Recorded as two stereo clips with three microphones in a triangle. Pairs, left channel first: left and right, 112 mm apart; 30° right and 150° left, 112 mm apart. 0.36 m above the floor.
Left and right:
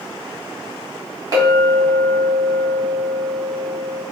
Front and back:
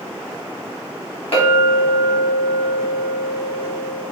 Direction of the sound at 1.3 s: 40° right.